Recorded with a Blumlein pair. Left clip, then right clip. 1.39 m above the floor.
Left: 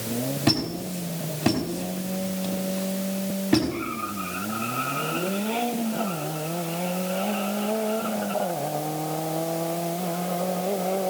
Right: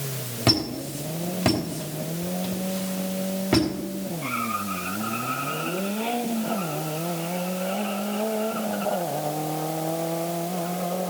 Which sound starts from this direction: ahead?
A squeak, at 0.5 s.